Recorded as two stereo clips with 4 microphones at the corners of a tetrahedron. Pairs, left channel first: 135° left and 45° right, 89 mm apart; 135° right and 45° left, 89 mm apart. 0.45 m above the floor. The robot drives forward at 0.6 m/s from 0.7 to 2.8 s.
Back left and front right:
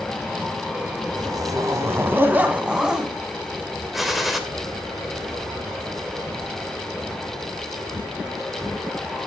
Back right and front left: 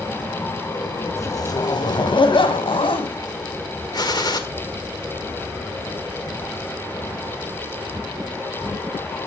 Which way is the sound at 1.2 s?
85° right.